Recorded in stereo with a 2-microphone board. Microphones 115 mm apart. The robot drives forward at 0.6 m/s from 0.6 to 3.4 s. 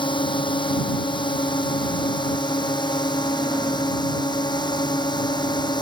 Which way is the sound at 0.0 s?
45° left (ahead or behind).